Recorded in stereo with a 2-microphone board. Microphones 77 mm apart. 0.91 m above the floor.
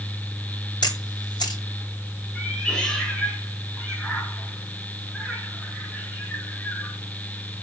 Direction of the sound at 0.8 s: 65° left (ahead or behind).